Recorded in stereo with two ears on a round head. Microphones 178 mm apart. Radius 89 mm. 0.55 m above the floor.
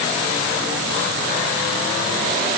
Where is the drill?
I don't hear a drill.